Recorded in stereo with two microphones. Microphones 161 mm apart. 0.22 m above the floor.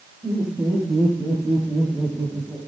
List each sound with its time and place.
0.2 s laughter: 25° right (ahead or behind), 9.5 m; by 2.6 s 15° right (ahead or behind), 7 m